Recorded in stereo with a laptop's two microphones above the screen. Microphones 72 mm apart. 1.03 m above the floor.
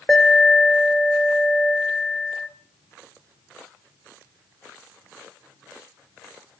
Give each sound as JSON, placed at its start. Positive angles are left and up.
{"t": 0.1, "sound": "an alarm", "side_deg": 5, "distance_m": 2.5}